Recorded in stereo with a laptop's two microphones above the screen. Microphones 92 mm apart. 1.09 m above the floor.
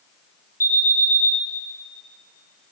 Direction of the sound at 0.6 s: 35° right (ahead or behind).